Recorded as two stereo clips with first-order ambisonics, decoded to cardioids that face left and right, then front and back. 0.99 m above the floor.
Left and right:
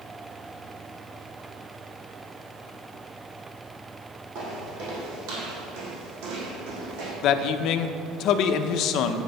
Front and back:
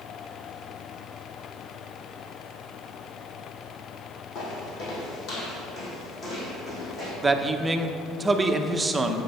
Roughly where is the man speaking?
Left.